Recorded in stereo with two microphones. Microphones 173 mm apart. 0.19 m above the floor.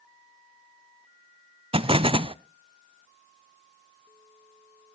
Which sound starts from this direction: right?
An explosion, at 1.7 s.